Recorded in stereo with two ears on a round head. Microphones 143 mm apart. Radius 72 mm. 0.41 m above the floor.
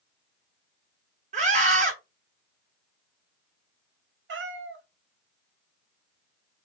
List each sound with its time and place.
1.3 s a scream: 45° right (ahead or behind), 1.6 m
4.3 s a cat meowing: 75° right (ahead or behind), 0.9 m